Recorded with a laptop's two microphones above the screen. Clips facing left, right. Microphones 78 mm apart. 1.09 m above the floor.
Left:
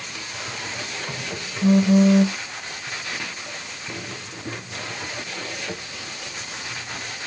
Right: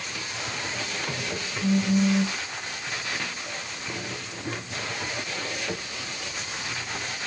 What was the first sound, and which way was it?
A phone buzzing, 65° left (ahead or behind).